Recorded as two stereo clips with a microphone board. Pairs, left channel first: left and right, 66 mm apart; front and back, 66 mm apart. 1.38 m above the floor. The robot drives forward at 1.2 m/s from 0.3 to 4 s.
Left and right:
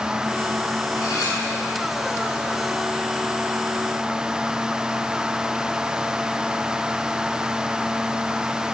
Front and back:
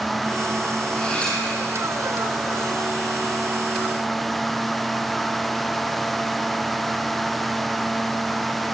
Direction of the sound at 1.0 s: 70° left.